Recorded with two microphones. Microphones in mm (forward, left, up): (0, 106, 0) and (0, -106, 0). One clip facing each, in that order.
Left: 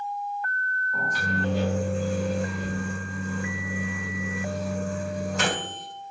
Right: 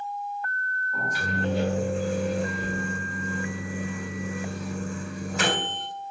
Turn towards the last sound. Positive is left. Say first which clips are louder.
# left 1 dB
turn(degrees=-5)  # may be behind; listen again after turning